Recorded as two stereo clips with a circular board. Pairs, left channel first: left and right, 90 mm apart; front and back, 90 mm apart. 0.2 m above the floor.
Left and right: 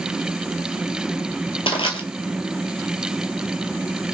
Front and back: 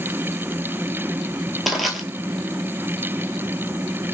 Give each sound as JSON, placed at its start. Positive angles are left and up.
{"t": 1.7, "sound": "crushing", "azimuth_deg": 90, "distance_m": 0.6}